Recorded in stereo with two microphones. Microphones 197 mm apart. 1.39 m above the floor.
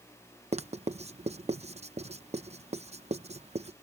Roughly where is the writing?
Right.